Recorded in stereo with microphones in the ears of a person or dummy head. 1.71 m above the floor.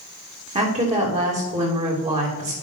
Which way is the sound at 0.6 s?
30° right (ahead or behind).